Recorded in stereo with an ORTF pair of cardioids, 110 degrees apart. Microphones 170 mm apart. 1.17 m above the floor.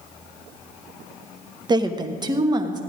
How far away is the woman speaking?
About 0.9 m.